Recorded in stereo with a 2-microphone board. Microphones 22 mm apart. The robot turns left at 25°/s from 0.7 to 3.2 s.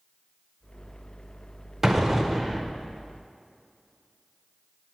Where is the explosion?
15° right (ahead or behind), 0.6 m; by 2.7 s 10° left (ahead or behind), 0.6 m.